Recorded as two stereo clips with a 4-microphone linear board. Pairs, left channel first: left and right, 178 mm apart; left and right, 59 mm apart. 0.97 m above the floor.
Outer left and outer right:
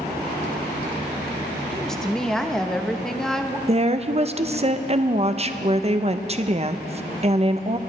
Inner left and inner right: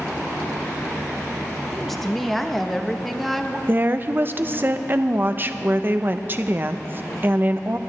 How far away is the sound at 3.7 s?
About 0.6 m.